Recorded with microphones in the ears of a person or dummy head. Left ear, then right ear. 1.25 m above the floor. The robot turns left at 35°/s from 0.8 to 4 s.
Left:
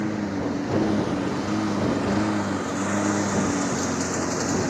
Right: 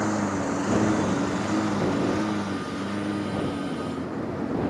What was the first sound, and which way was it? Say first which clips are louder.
A lawn mower: right 1 dB; 45° right (ahead or behind).